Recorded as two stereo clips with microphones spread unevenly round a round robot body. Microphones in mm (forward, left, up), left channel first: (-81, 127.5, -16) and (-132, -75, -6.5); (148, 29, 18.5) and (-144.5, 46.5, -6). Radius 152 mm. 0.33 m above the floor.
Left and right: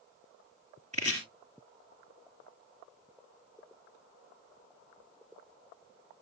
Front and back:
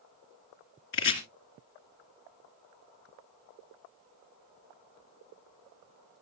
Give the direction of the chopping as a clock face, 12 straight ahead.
1 o'clock.